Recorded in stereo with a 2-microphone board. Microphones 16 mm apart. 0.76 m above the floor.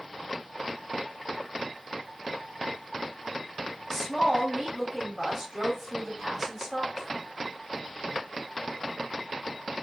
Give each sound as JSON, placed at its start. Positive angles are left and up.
{"t": 3.9, "sound": "a woman speaking", "side_deg": -25, "distance_m": 1.4}